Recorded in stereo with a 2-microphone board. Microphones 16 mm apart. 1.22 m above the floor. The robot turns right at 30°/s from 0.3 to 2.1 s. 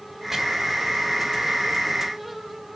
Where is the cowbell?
I don't hear a cowbell.